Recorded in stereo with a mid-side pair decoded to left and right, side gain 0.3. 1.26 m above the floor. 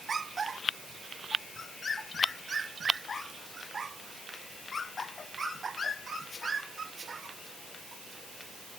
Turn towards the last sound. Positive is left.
No sound to turn to.